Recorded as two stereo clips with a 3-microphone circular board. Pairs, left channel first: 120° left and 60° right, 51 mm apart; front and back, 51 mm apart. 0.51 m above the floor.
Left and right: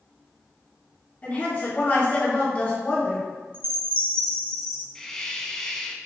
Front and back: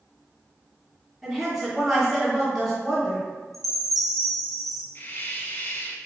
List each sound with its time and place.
1.2 s a woman speaking: 85° left, 1.4 m
3.5 s a chime: 90° right, 0.9 m
5.0 s a hiss: 40° left, 0.6 m